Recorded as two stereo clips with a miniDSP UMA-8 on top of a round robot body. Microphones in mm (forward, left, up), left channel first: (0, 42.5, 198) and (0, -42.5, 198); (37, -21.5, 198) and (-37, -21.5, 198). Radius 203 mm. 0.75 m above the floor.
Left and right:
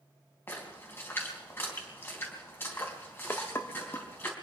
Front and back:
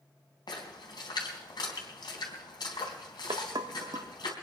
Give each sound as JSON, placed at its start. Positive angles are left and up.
{"t": 0.5, "sound": "a splash", "azimuth_deg": 25, "distance_m": 3.5}
{"t": 3.3, "sound": "dishes clattering", "azimuth_deg": 155, "distance_m": 1.4}